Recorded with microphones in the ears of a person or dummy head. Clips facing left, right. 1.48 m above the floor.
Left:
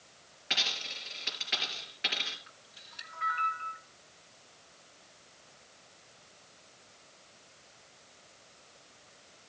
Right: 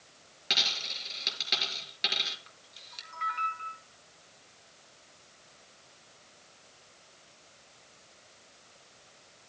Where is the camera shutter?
45° right (ahead or behind), 4 m.